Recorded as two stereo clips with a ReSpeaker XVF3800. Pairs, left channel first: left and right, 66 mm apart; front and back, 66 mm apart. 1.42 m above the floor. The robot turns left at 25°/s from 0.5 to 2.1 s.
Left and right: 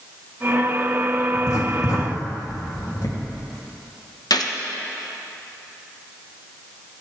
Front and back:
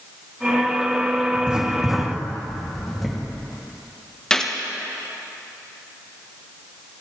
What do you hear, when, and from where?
1.3 s writing: 110° left, 2.5 m; by 3.2 s 90° left, 2.5 m
4.3 s a gunshot: 80° left, 1.0 m